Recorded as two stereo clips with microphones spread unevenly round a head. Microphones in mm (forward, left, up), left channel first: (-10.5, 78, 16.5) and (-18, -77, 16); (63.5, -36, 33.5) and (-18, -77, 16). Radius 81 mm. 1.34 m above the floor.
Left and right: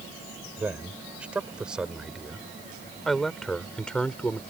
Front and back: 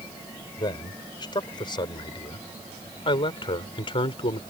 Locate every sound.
0.6 s a man speaking: 10° right; by 4.4 s 5° left